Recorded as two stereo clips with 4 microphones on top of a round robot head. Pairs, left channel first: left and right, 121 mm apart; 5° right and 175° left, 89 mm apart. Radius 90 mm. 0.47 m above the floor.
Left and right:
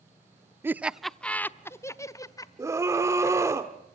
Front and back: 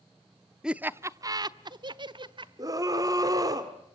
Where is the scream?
150° right, 1.4 m.